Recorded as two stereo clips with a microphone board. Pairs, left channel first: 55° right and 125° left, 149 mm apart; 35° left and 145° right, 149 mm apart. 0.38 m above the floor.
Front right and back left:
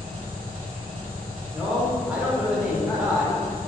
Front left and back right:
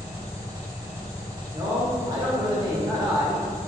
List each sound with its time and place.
0.0 s an engine running: 145° left, 1.1 m
1.5 s a man speaking: 160° right, 0.8 m